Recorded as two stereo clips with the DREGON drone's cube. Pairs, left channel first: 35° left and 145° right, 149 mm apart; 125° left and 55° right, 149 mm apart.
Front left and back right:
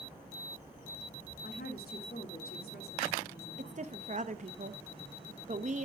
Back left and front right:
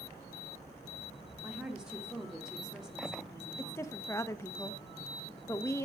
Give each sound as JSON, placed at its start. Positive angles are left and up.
{"t": 1.4, "sound": "a woman speaking", "azimuth_deg": 30, "distance_m": 1.9}
{"t": 3.6, "sound": "a woman speaking", "azimuth_deg": -165, "distance_m": 0.7}